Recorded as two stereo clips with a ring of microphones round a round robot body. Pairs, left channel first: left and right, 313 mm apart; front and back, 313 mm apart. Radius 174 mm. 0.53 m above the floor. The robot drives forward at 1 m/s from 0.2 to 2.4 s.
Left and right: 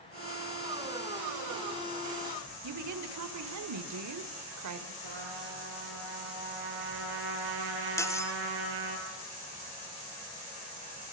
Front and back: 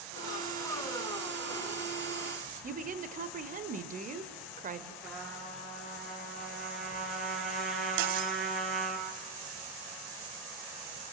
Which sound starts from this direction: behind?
Cutlery clinking, at 8.0 s.